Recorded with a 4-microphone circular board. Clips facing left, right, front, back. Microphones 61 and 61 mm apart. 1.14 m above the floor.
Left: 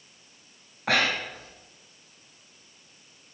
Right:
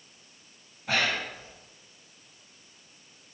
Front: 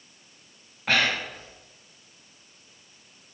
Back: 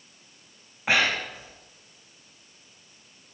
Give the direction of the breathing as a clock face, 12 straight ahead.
9 o'clock.